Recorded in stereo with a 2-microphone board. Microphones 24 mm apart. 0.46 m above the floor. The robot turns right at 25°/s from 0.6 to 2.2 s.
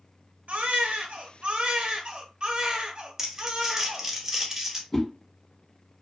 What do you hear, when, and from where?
0.5 s a baby crying: 85° right, 0.6 m; by 4.1 s 45° right, 0.6 m
3.2 s crumpling: 20° right (ahead or behind), 0.7 m
4.9 s a whoosh: 15° left (ahead or behind), 0.7 m